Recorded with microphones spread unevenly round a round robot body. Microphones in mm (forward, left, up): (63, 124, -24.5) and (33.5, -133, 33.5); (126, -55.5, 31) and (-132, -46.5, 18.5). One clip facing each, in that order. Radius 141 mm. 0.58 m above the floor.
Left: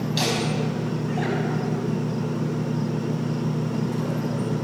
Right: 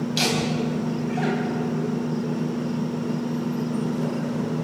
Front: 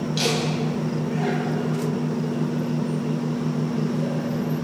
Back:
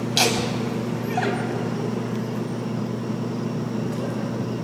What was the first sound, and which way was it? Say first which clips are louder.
Laughter: right 1 dB, even; 175° right.